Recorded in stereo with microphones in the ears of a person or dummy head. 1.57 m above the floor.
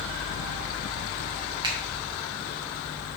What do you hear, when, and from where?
1.6 s a finger snap: 25° right (ahead or behind), 1.4 m